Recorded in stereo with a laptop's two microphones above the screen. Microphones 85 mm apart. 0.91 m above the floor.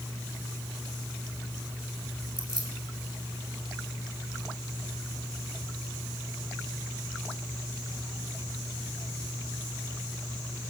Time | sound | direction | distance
2.4 | keys jangling | 80° right | 3 m